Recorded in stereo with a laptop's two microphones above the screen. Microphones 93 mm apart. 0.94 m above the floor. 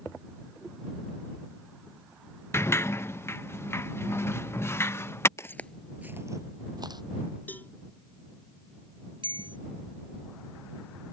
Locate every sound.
2.5 s a sliding door: 25° left (ahead or behind)
5.4 s footsteps: 35° left (ahead or behind); by 7.0 s 55° right (ahead or behind)
7.5 s a cowbell: 20° left (ahead or behind)
9.2 s a bell: 65° right (ahead or behind)